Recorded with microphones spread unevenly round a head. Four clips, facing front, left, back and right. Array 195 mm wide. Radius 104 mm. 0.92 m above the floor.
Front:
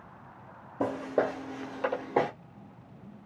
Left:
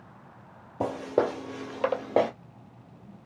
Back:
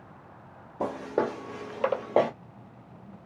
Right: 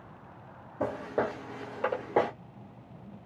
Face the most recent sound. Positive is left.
turn(degrees=140)